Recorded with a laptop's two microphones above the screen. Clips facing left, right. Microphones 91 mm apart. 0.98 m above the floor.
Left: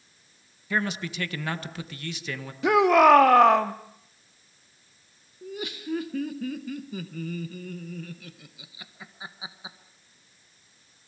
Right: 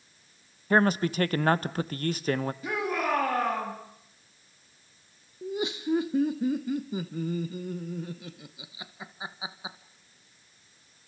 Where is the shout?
80° left, 1.5 m.